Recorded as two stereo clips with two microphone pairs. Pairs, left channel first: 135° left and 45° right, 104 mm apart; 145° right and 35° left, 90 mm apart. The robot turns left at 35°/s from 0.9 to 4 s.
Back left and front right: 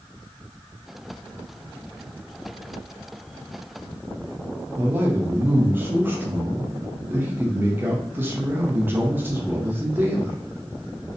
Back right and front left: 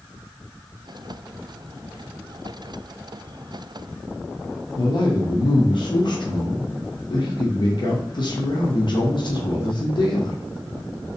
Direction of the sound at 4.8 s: 115° right.